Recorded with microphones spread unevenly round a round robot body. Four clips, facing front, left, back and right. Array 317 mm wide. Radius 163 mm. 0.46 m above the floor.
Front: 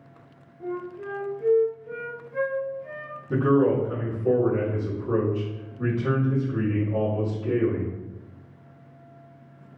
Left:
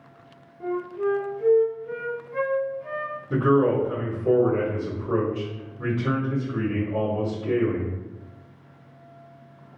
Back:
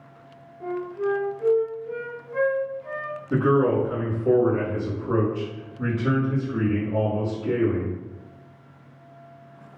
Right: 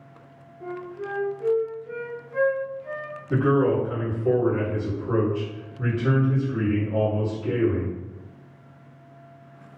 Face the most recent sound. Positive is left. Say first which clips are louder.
# left 1 dB, even
turn(degrees=-5)